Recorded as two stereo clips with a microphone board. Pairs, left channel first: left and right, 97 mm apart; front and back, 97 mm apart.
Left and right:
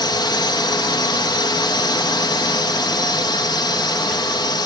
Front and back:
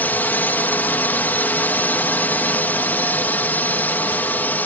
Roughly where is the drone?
Left.